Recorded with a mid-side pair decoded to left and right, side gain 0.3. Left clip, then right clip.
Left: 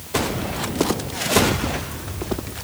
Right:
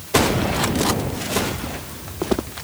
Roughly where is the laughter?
No laughter in this recording.